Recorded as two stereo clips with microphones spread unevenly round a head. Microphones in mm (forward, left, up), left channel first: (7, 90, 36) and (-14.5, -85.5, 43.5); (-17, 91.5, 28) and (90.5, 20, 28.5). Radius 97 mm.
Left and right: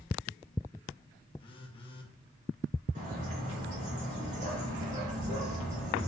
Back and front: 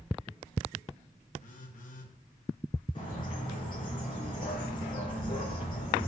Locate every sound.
1.4 s a phone buzzing: 145° left, 1.5 m
3.0 s a bird: 145° right, 4.5 m